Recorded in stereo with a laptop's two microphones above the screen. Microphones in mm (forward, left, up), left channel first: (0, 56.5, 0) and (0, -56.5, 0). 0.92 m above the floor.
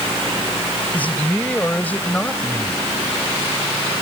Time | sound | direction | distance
0.9 | a man speaking | 15° left (ahead or behind) | ?